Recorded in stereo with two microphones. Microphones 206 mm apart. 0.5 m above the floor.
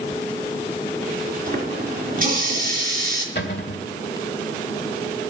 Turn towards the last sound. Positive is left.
turn(degrees=55)  # may be behind; listen again after turning